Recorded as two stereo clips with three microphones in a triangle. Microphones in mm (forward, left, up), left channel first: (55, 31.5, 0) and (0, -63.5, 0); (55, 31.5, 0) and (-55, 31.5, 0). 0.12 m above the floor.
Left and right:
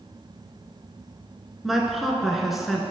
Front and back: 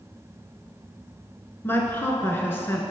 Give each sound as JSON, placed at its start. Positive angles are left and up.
{"t": 1.6, "sound": "a woman speaking", "azimuth_deg": -35, "distance_m": 1.2}